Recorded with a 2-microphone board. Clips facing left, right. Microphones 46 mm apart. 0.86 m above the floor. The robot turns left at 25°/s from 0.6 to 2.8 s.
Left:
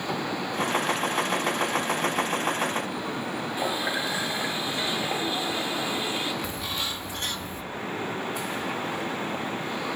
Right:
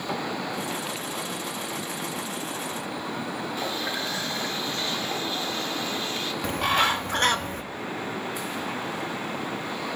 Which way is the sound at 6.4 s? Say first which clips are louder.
Right 9 dB; 60° right (ahead or behind).